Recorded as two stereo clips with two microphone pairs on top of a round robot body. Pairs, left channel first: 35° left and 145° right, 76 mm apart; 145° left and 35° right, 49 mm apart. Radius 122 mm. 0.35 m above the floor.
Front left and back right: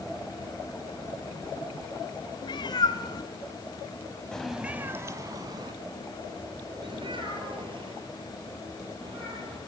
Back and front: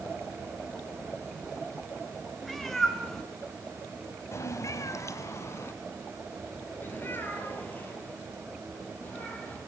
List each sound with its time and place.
2.4 s a cat meowing: 60° left, 3 m; by 9.6 s 155° right, 7.5 m